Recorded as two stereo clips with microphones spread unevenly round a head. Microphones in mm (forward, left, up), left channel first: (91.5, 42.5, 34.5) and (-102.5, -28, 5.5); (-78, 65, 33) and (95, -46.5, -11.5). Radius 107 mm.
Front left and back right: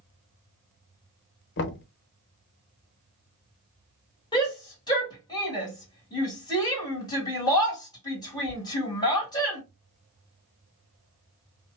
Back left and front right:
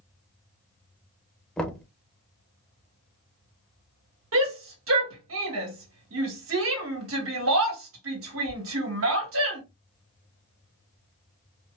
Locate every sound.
1.6 s knocking: 55° left, 0.7 m
4.3 s a shout: 55° right, 2 m